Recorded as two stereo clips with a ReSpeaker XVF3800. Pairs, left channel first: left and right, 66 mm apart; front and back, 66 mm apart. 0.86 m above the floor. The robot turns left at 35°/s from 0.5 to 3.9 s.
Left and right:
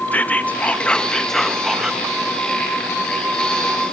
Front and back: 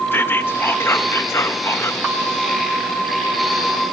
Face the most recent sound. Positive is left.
turn(degrees=-80)